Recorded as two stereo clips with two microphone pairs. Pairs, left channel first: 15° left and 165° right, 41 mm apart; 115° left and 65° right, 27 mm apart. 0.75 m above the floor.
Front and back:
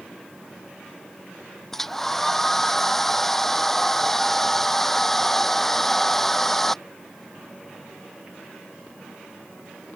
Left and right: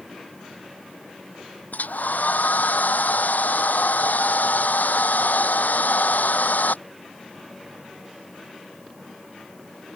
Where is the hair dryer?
100° left.